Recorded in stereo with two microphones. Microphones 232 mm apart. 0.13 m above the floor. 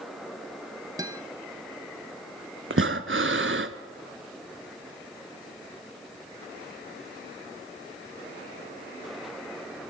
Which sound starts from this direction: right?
Breathing, at 2.7 s.